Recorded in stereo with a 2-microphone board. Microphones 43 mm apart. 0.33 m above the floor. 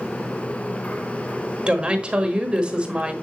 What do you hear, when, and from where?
1.7 s a woman speaking: 25° right (ahead or behind), 1.3 m